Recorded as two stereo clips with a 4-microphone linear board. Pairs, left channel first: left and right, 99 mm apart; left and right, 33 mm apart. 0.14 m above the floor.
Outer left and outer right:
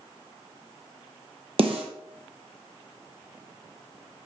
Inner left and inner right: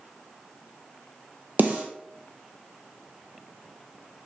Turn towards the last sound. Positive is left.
turn(degrees=-65)  # may be behind; listen again after turning